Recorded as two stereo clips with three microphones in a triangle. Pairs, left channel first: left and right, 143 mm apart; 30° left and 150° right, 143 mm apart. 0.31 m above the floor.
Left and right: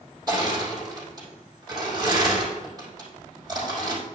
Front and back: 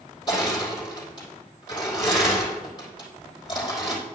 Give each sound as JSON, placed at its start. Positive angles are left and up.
{"t": 0.3, "sound": "crushing", "azimuth_deg": -30, "distance_m": 4.0}